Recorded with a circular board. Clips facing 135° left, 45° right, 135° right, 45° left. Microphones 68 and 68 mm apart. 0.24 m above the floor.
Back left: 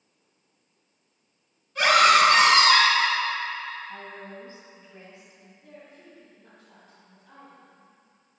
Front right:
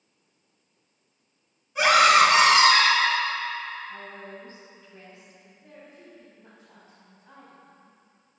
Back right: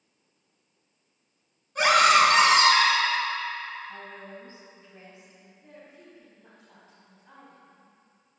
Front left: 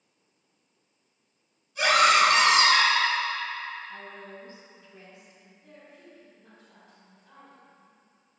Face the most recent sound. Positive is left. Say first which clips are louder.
# even, back right 1 dB
turn(degrees=-95)